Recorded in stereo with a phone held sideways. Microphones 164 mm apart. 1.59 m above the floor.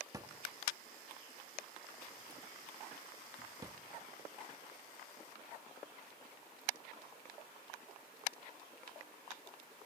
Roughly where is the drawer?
Right.